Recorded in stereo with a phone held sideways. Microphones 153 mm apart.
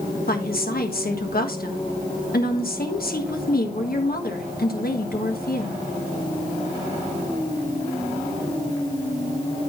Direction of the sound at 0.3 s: 70° left (ahead or behind).